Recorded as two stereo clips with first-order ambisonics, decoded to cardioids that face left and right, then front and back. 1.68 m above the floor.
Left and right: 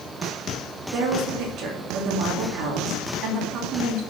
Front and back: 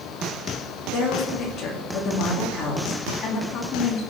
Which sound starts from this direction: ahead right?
A woman speaking, at 0.9 s.